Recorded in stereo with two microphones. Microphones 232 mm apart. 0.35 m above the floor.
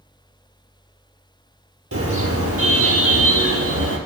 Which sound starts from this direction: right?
A car horn, at 1.9 s.